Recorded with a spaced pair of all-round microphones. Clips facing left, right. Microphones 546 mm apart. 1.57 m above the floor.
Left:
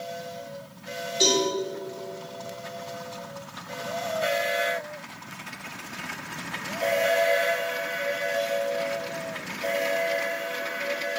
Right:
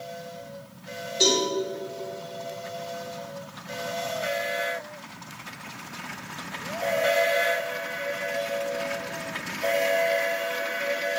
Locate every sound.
1.2 s a cowbell: 10° left (ahead or behind), 4.5 m